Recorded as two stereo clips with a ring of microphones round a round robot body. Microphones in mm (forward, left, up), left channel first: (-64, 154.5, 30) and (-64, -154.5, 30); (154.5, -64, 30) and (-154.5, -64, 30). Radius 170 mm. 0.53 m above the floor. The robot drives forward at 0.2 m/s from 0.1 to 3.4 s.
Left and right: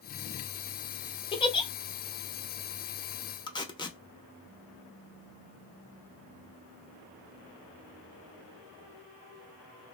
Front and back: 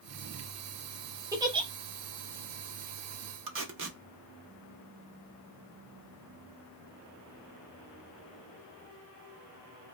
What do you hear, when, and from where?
1.3 s a giggle: 125° left, 0.5 m; by 1.7 s 140° left, 0.6 m
3.5 s tape being pulled: 160° left, 0.7 m